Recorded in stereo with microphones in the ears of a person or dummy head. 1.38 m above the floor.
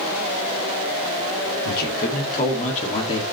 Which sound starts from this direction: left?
A man speaking, at 1.6 s.